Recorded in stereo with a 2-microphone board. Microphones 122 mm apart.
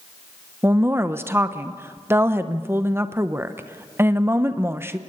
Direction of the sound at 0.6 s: 20° right (ahead or behind).